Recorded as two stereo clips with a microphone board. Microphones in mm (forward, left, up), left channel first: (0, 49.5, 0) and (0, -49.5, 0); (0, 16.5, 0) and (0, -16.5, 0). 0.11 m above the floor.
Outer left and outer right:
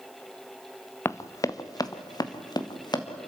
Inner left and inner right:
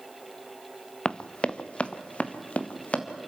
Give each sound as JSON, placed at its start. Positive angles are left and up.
{"t": 1.1, "sound": "running footsteps", "side_deg": 25, "distance_m": 0.7}